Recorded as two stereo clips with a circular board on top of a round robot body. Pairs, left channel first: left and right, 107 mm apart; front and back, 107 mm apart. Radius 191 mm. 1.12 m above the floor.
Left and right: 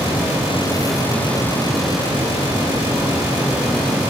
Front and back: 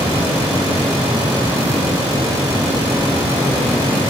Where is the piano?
I don't hear a piano.